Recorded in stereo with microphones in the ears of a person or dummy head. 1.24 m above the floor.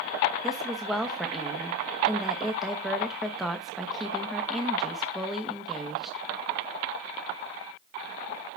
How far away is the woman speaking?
About 1.0 m.